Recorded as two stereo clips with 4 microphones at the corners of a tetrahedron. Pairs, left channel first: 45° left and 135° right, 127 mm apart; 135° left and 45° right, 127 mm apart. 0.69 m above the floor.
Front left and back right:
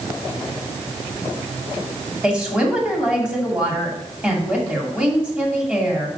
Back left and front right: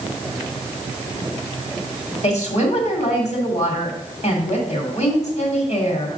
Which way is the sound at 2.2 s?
145° left.